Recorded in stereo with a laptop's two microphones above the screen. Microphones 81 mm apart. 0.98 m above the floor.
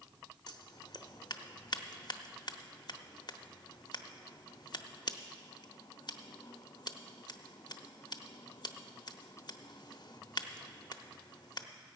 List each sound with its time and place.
0.5 s scissors: 60° left (ahead or behind), 0.8 m